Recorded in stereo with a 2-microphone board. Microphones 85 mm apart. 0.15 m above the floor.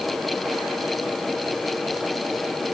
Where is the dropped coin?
No dropped coin in this recording.